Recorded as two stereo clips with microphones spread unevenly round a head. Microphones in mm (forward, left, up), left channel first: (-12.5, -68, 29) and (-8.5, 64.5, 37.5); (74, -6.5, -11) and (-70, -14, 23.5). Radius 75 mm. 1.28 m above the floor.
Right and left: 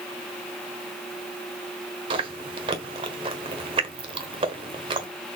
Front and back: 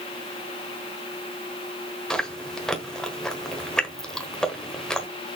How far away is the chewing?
About 1.2 m.